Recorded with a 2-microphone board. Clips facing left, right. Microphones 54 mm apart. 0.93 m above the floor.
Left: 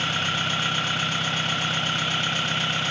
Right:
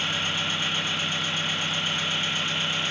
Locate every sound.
0.0 s an engine running: 75° left (ahead or behind), 1.7 m